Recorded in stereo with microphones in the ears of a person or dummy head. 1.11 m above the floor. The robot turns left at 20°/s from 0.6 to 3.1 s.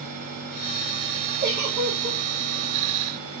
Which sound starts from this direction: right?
A giggle, at 1.4 s.